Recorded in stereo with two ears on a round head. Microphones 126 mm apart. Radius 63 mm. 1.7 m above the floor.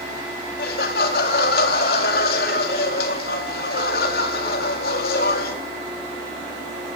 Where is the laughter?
70° left (ahead or behind), 4 m.